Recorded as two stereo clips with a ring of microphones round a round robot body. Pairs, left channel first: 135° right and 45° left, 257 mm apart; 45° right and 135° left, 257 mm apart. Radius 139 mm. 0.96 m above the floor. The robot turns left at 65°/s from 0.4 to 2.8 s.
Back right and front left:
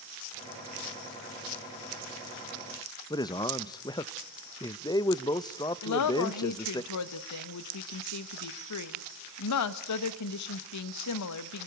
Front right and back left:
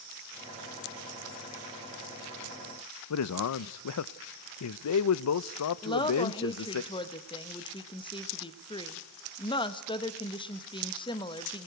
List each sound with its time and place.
3.1 s a man speaking: 60° right, 0.6 m
5.8 s a woman speaking: 115° right, 0.9 m